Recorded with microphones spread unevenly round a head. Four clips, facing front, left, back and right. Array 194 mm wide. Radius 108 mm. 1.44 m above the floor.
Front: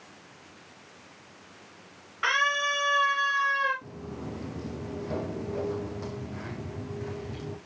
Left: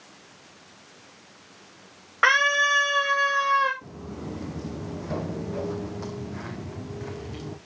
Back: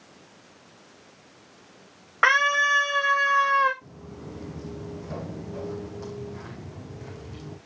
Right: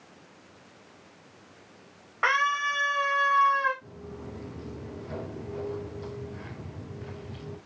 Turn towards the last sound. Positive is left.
turn(degrees=65)